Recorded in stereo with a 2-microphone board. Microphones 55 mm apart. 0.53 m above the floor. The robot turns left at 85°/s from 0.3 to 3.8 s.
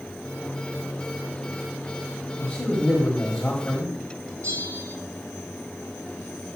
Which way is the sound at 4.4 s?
60° right (ahead or behind).